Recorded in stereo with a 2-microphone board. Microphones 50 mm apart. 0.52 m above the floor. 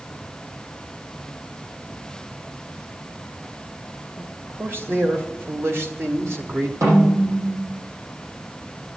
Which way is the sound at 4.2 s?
45° right (ahead or behind).